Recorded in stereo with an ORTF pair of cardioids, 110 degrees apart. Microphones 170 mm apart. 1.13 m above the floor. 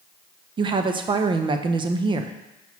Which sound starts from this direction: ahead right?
A woman speaking, at 0.6 s.